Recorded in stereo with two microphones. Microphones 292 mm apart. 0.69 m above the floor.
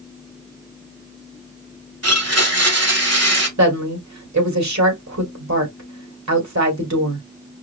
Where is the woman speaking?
65° right (ahead or behind), 2 m.